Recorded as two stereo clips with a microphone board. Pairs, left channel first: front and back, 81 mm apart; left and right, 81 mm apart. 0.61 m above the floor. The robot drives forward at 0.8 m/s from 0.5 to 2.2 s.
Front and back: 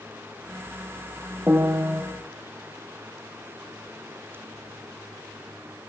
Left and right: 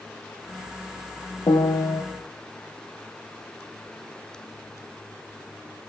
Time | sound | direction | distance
1.5 | a piano | 115° left | 1.8 m